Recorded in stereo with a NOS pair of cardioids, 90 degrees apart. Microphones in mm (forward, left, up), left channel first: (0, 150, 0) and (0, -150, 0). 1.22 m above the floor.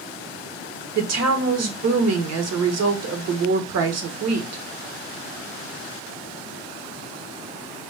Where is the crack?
No crack in this recording.